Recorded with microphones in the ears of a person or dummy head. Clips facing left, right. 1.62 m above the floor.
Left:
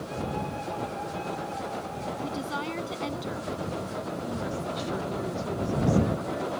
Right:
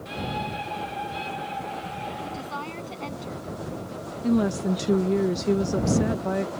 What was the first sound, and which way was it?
A woman speaking, 25° left (ahead or behind).